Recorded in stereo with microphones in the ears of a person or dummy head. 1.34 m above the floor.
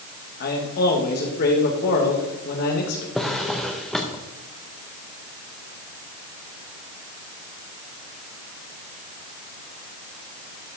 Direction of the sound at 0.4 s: 50° left (ahead or behind).